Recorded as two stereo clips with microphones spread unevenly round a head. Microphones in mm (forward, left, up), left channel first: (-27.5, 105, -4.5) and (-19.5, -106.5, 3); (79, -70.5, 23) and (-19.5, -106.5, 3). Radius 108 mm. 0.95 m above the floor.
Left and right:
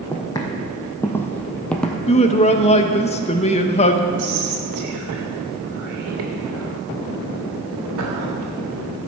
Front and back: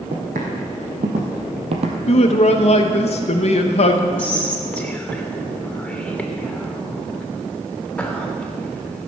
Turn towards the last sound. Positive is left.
turn(degrees=-60)